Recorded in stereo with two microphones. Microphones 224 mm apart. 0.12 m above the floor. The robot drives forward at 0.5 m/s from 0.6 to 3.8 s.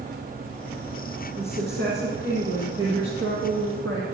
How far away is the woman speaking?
About 4 m.